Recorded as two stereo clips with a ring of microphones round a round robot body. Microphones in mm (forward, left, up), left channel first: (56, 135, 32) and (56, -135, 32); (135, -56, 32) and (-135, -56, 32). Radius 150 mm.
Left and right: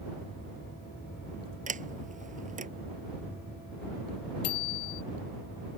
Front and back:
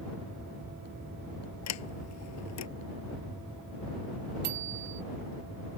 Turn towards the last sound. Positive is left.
turn(degrees=120)